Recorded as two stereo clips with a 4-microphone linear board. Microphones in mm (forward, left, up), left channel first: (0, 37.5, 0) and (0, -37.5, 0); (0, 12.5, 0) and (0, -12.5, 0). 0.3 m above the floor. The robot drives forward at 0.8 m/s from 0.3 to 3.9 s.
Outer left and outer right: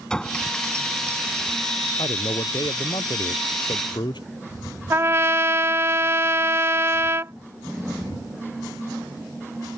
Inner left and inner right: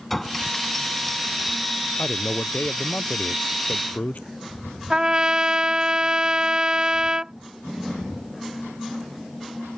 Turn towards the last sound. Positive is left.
turn(degrees=-35)  # may be behind; listen again after turning